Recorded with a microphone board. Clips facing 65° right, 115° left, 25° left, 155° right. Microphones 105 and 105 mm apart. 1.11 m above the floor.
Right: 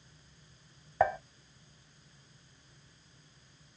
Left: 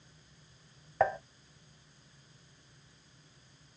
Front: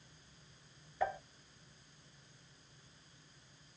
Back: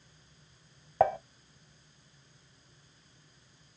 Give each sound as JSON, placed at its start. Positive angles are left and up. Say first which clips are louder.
{"t": 1.0, "sound": "dishes clattering", "louder": "right 1 dB, back 11 dB", "azimuth_deg": -155, "distance_m": 0.9}